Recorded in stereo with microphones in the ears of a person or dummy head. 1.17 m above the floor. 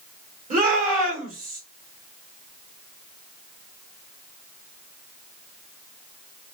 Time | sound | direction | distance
0.5 | a shout | 45° right (ahead or behind) | 1.8 m